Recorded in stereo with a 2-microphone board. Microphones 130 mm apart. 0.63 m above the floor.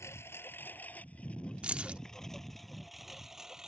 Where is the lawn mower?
20° left (ahead or behind); by 3.7 s 5° right (ahead or behind).